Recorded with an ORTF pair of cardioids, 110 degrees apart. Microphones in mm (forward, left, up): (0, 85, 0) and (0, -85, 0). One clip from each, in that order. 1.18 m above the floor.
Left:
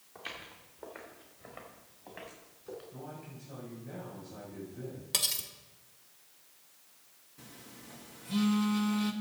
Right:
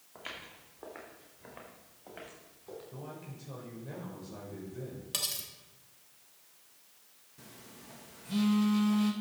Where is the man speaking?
55° right, 4 m.